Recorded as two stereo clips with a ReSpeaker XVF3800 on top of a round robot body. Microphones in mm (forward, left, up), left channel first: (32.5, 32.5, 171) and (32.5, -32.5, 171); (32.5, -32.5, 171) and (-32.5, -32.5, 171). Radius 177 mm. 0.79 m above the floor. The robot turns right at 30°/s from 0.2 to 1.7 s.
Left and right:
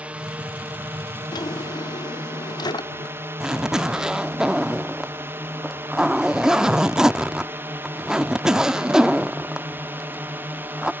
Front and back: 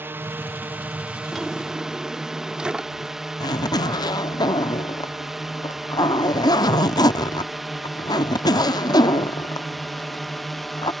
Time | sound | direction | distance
0.0 | a drone | 150° right | ?
1.3 | a drawer | 90° left | ?
3.4 | a zipper | 10° right | ?